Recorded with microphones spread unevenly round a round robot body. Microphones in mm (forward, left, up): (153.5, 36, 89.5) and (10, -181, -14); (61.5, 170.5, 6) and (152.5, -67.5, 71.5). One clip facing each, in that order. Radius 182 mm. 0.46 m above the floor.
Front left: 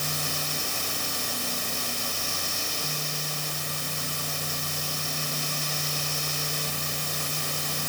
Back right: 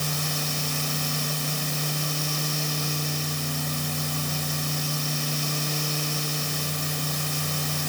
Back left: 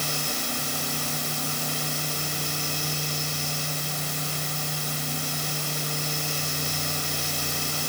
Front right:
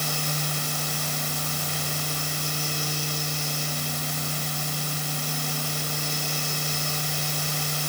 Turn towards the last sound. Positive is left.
No sound to turn to.